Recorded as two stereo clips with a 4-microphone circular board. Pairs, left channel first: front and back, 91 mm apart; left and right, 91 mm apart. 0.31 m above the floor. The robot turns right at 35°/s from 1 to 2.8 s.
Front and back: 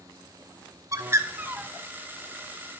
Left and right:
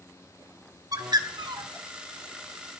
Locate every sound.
0.9 s a bird: 130° right, 0.8 m; by 1.7 s 105° right, 0.8 m